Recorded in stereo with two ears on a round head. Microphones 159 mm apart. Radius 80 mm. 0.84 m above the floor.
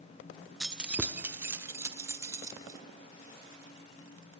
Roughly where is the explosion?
I don't hear an explosion.